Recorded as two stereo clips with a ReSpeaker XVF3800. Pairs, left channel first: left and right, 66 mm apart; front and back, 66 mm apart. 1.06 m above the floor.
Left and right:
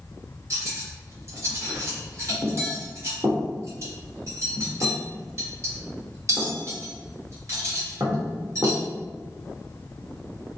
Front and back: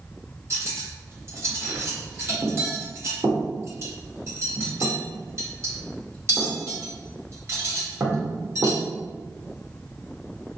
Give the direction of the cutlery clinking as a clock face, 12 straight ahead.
4 o'clock.